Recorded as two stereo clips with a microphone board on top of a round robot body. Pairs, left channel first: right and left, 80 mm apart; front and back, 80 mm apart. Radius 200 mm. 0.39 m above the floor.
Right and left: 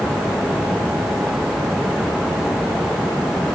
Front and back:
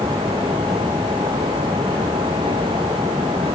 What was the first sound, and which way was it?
Only background noise.